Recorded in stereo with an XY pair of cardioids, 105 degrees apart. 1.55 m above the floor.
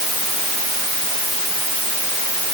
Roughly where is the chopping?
No chopping in this recording.